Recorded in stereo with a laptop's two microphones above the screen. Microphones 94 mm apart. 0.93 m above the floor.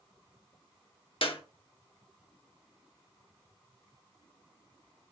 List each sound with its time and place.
1.2 s a clap: 70° left (ahead or behind), 1.2 m